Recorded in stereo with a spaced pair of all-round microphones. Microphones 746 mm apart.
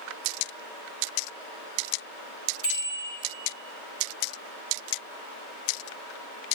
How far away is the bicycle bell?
About 3.5 m.